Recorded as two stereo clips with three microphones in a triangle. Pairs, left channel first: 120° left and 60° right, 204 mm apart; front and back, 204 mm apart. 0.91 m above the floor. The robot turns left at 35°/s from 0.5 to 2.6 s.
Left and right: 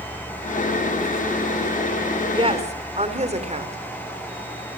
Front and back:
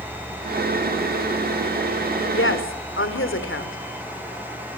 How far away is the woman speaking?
About 3.5 m.